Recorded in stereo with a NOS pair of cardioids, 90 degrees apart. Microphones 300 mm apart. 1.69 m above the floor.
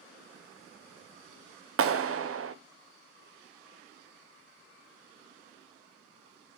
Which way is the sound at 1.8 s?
50° right.